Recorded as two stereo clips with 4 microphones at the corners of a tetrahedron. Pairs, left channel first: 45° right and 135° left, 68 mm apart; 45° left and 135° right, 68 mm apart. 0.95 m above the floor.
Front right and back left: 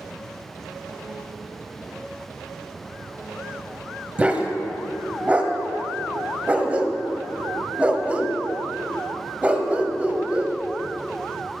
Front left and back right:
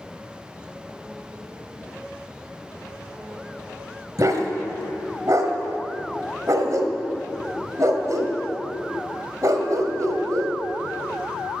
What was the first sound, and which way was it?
A dog barking, 160° right.